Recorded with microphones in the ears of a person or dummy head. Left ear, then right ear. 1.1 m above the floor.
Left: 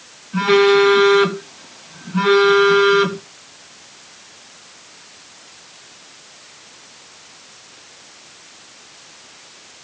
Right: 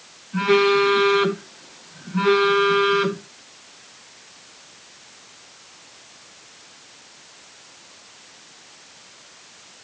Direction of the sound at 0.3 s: 15° left (ahead or behind).